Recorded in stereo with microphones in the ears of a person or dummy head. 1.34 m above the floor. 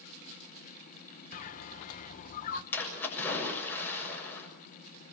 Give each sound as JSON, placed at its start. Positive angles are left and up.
{"t": 1.3, "sound": "a bird", "side_deg": 45, "distance_m": 1.3}
{"t": 2.7, "sound": "a splash", "side_deg": 10, "distance_m": 7.0}